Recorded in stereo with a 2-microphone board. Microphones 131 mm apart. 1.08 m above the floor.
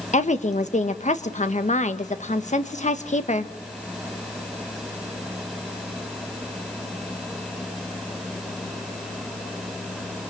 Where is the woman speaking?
65° left (ahead or behind), 1.4 m.